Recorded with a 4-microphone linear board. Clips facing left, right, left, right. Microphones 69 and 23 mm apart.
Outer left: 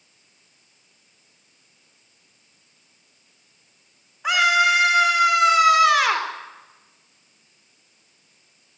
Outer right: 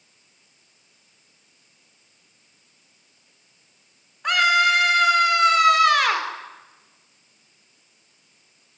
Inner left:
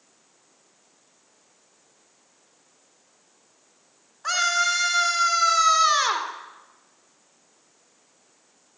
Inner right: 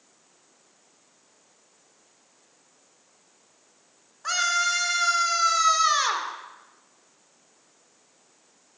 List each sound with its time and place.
4.2 s a scream: 5° left (ahead or behind), 3 m